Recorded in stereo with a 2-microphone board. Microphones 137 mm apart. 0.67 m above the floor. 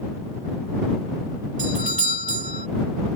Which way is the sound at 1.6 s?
65° right (ahead or behind).